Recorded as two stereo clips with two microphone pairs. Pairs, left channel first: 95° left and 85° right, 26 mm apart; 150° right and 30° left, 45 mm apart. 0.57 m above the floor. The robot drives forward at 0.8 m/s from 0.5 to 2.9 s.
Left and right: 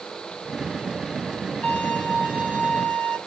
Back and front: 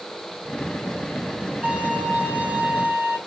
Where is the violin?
90° left, 6 m; by 3.2 s 100° left, 6.5 m.